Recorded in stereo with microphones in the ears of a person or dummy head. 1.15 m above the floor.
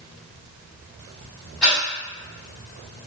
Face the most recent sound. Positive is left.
turn(degrees=5)  # may be behind; listen again after turning